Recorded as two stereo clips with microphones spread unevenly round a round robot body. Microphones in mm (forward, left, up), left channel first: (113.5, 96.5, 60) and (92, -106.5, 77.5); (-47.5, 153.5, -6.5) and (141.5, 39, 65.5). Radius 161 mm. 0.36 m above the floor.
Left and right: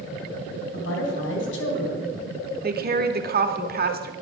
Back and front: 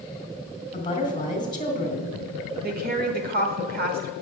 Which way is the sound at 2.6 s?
90° right.